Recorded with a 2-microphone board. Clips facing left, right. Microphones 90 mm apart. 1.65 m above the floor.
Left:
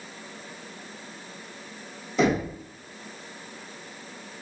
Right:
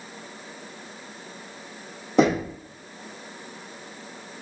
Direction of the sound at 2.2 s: 65° right (ahead or behind).